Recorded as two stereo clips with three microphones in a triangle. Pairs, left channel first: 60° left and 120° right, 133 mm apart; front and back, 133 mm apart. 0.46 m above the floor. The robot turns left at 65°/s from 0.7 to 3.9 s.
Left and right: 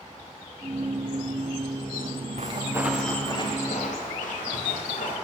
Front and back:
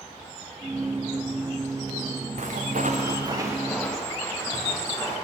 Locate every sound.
2.4 s footsteps: 155° right, 1.8 m; by 5.1 s 70° left, 5.5 m